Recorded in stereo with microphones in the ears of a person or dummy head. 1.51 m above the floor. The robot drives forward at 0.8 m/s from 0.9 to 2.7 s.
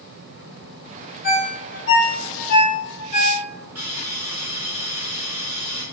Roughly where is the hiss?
Centre.